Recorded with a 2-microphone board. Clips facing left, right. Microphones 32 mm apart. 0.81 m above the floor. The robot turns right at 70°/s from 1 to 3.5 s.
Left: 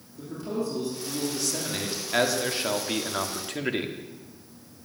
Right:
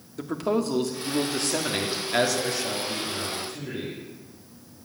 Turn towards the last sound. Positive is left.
turn(degrees=100)